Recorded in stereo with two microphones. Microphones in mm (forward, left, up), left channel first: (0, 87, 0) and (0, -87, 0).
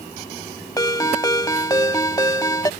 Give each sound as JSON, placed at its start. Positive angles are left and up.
{"t": 0.8, "sound": "a ringtone", "side_deg": 20}